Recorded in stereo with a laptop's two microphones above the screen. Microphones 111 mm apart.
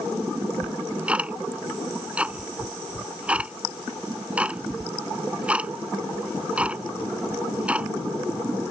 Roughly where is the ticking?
Centre.